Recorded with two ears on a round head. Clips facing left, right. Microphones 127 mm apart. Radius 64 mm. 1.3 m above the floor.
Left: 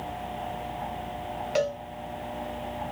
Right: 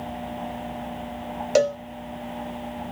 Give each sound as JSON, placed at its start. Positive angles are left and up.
{"t": 1.6, "sound": "a cowbell", "side_deg": -50, "distance_m": 0.7}